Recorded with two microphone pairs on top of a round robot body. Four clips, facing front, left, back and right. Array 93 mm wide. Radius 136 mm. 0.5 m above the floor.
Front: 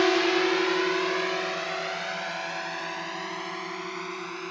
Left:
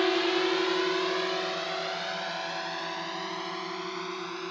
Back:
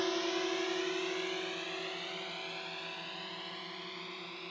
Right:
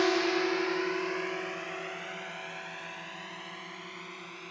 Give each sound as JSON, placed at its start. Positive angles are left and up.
{"t": 0.0, "sound": "a drone", "azimuth_deg": 15}